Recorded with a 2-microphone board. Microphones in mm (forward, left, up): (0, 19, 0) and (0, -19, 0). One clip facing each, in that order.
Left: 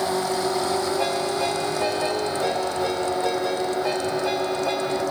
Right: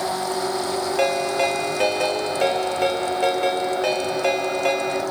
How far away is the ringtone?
About 1.8 m.